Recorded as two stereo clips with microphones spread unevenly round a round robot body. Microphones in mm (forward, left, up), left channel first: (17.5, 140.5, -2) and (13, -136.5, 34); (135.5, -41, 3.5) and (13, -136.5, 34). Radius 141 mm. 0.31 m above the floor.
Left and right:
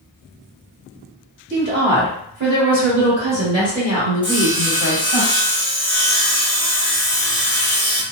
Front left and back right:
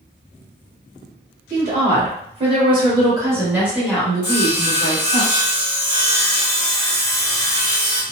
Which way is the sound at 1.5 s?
125° right.